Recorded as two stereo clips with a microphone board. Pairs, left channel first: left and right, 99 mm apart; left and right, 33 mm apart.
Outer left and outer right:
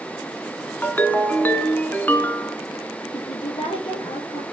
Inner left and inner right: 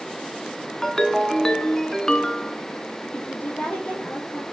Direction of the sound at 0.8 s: 15° left (ahead or behind).